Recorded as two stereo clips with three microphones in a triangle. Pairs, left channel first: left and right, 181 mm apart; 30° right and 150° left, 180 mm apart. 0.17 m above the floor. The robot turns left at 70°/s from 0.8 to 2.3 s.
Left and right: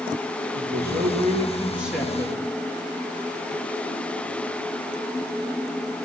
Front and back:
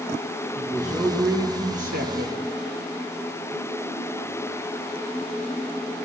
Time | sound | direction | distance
0.6 | a man speaking | 100° right | 3 m